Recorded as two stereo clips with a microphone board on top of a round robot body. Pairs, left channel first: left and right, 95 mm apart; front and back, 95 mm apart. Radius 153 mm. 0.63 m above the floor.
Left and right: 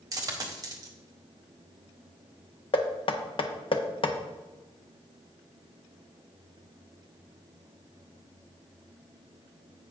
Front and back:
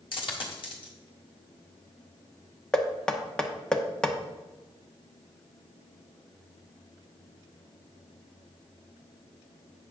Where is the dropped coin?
35° right, 1.6 m.